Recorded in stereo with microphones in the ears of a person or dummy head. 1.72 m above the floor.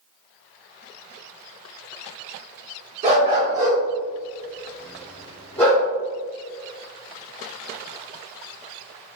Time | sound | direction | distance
3.0 | a dog barking | 40° right (ahead or behind) | 1.9 m